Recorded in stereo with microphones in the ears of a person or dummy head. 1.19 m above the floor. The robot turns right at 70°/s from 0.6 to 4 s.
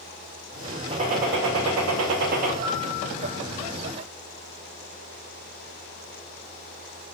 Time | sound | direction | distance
0.9 | a gunshot | 150° right | 0.5 m
2.6 | a piano | 60° right | 1.2 m